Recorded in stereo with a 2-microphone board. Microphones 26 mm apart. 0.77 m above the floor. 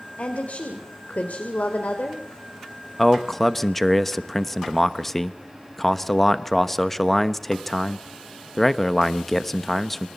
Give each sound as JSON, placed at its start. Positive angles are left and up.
{"t": 0.2, "sound": "a woman speaking", "side_deg": 70, "distance_m": 3.0}
{"t": 3.0, "sound": "a man speaking", "side_deg": 10, "distance_m": 1.0}